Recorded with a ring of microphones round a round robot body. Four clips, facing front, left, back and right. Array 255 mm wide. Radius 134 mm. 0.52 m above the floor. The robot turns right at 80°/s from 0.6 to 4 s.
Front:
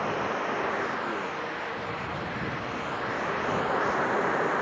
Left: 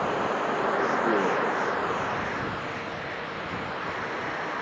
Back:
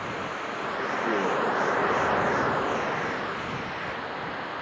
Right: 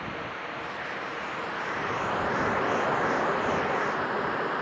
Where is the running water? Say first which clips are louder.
Left 9 dB, front 4 dB; 65° left; by 4.6 s 20° right.